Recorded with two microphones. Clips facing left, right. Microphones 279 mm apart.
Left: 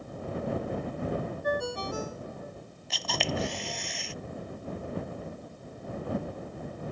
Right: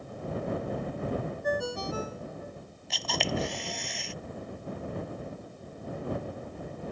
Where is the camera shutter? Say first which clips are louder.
Right 1 dB; centre (ahead or behind).